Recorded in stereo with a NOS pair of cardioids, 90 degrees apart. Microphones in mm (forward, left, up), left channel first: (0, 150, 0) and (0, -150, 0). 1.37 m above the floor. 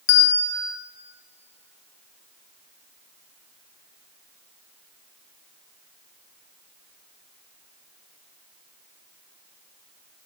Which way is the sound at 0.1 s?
55° left.